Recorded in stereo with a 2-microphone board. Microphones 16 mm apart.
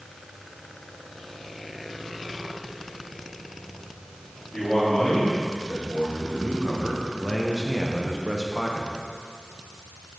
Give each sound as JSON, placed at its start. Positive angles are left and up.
{"t": 4.5, "sound": "a man speaking", "side_deg": 70, "distance_m": 3.0}